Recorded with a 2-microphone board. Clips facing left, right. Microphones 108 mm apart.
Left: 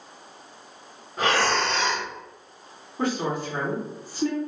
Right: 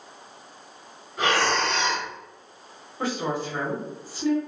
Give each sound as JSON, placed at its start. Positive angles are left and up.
{"t": 1.2, "sound": "breathing", "side_deg": 40, "distance_m": 1.4}
{"t": 3.0, "sound": "a woman speaking", "side_deg": 50, "distance_m": 1.7}